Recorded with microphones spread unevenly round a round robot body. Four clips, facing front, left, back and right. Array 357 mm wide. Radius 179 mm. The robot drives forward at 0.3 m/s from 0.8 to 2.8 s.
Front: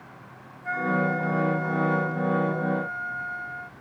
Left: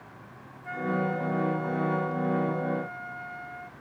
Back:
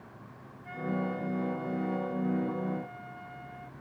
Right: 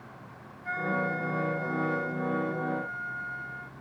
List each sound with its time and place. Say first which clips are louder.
0.6 s a flute: left 1 dB, front 8 dB; 20° right